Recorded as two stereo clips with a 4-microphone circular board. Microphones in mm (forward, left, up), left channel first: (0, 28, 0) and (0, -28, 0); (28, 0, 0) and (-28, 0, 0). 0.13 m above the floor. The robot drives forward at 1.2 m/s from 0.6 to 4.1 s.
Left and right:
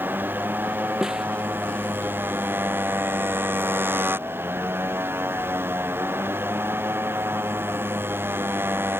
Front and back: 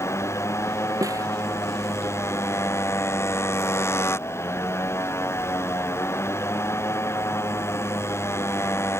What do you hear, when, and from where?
0.0 s a motorcycle: 35° right; by 9.0 s 40° right
1.0 s a snare drum: 170° right